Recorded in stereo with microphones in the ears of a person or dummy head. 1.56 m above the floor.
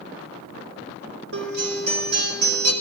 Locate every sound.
1.3 s a guitar: 75° right (ahead or behind), 4.5 m